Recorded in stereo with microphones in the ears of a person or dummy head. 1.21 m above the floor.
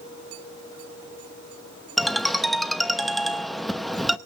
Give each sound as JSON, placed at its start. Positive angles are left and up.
{"t": 2.0, "sound": "a ringtone", "side_deg": 0, "distance_m": 0.7}